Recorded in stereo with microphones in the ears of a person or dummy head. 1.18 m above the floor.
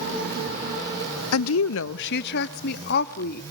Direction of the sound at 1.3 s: 85° left.